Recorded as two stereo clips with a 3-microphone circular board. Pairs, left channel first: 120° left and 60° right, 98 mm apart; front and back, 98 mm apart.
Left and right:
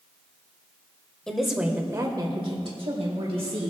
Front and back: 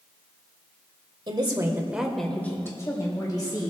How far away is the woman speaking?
About 1.4 m.